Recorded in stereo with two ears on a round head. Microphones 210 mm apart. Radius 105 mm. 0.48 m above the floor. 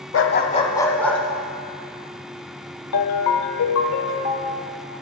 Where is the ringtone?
70° left (ahead or behind), 0.9 m.